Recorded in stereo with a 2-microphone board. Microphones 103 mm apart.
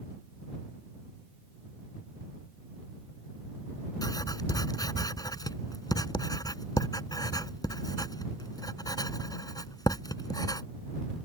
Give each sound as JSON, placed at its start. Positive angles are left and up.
{"t": 4.0, "sound": "writing", "side_deg": 40}